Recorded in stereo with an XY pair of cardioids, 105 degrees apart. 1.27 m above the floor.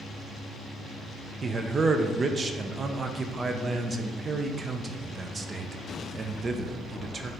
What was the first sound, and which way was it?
A man speaking, 35° right.